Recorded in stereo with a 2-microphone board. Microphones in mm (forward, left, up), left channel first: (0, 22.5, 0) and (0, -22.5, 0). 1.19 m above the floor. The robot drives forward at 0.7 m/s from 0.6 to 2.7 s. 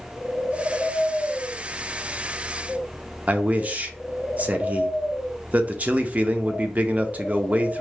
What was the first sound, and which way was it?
A man speaking, 35° right (ahead or behind).